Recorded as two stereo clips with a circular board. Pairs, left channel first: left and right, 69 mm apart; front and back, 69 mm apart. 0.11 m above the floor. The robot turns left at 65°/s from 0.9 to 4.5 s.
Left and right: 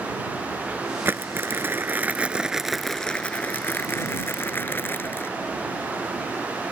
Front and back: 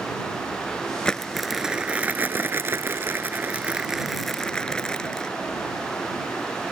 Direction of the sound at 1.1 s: 65° right.